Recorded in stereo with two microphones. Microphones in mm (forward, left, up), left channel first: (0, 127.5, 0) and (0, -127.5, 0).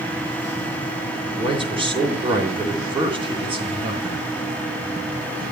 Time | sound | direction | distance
1.3 | a man speaking | 20° right (ahead or behind) | 3.5 m